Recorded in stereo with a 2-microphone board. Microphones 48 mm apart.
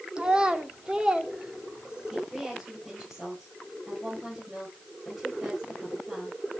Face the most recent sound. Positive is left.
turn(degrees=0)  # may be behind; listen again after turning